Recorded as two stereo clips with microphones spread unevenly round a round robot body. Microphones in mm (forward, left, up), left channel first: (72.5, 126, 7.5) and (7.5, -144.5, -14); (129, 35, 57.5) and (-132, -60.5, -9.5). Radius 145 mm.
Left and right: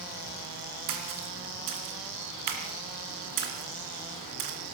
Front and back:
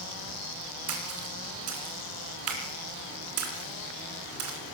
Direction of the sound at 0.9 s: 130° right.